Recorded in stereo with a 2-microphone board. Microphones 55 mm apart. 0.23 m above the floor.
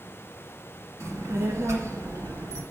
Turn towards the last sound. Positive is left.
turn(degrees=-70)  # may be behind; listen again after turning